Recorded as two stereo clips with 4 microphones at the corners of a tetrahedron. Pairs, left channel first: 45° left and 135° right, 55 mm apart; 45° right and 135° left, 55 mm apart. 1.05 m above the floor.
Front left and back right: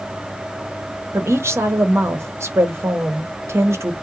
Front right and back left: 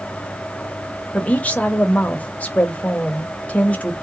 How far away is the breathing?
No breathing in this recording.